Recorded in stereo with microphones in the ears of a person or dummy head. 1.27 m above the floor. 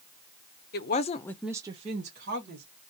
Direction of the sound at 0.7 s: 45° left (ahead or behind).